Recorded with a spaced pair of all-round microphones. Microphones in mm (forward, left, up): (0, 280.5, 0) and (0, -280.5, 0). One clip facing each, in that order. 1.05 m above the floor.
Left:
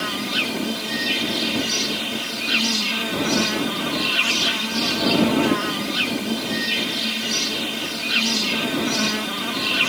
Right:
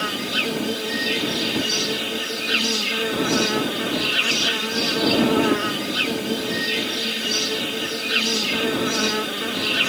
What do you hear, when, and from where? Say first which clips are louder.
0.0 s an insect: even; 25° left (ahead or behind)